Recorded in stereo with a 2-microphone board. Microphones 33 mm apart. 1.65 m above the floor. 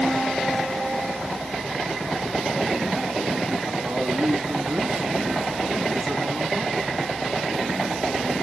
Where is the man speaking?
50° right (ahead or behind), 3 m.